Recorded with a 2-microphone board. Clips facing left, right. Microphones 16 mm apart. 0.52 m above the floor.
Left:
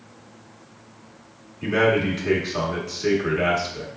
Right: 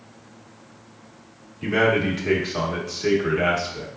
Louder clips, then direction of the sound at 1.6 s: Even; centre (ahead or behind).